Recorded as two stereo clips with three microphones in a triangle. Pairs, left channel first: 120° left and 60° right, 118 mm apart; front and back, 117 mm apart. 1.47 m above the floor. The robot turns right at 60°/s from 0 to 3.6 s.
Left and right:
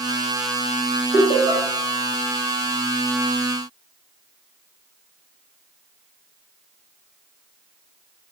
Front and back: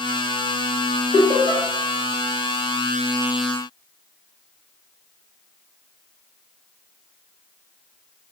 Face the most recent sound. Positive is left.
turn(degrees=110)